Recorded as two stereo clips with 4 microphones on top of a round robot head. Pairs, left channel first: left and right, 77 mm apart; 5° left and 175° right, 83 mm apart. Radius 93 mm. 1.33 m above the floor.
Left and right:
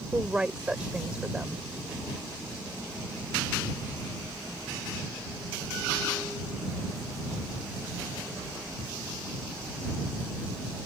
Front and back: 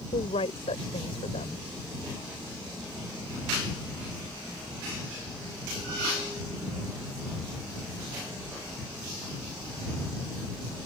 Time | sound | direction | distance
0.1 | a woman speaking | 15° right | ?